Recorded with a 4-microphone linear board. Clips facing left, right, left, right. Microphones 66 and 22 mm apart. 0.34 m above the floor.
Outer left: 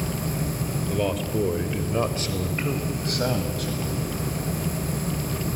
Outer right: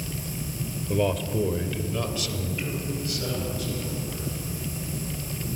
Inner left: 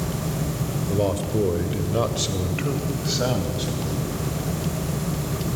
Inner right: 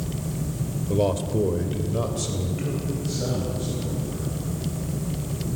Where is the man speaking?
10° right (ahead or behind), 1.1 m; by 4.2 s 65° left (ahead or behind), 2.5 m.